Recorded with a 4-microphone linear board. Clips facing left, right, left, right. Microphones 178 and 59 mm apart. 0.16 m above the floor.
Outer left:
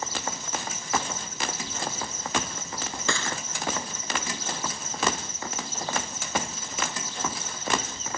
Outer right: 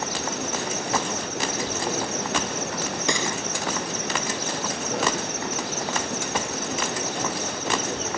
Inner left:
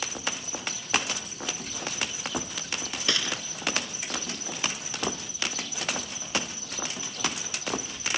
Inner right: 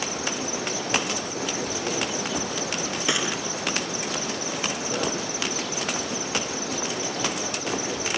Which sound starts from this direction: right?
An insect, at 0.0 s.